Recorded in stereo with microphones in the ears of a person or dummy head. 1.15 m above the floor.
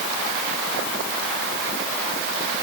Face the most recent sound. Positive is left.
No sound to turn to.